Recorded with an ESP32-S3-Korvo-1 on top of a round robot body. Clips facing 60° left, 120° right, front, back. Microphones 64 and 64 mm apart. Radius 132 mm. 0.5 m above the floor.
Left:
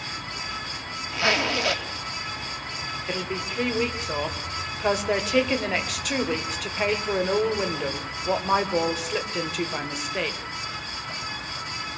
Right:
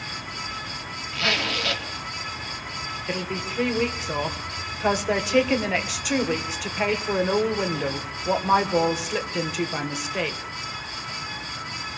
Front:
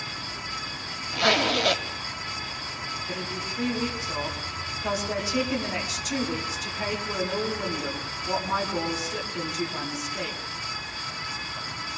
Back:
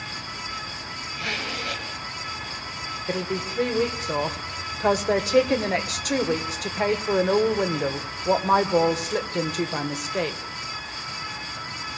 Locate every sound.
1.1 s a zipper: 10° right, 1.4 m
3.1 s a woman speaking: 155° left, 2.5 m